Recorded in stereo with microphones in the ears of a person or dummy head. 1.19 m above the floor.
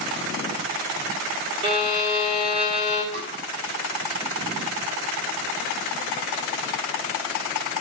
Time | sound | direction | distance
1.6 | a violin | 30° right (ahead or behind) | 3 m
3.1 | tapping | 55° right (ahead or behind) | 7.5 m